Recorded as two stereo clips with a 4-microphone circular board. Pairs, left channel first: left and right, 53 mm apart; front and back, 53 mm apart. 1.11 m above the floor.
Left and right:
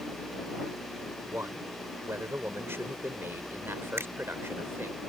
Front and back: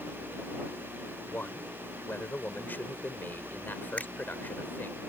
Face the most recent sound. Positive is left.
turn(degrees=-60)